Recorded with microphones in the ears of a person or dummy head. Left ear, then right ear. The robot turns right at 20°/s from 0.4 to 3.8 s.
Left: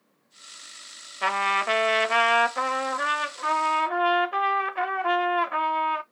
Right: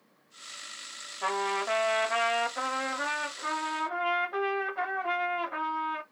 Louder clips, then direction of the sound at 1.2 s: Left 6 dB; 70° left.